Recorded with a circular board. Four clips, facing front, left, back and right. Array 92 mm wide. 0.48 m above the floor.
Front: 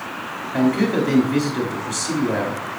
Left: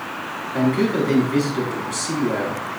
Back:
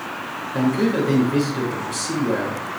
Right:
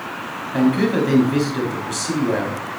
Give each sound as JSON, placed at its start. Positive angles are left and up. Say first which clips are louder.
{"t": 0.5, "sound": "a man speaking", "louder": "right 2 dB, front 1 dB", "azimuth_deg": -55, "distance_m": 3.0}